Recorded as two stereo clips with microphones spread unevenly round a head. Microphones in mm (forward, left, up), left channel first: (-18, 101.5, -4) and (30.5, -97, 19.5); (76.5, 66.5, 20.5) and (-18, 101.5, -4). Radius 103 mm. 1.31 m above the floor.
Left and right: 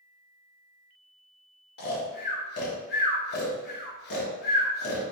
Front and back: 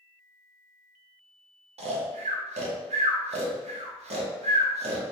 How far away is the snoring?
About 0.9 m.